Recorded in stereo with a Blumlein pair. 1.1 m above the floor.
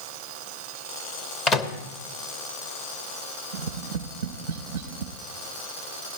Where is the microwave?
20° left, 0.9 m.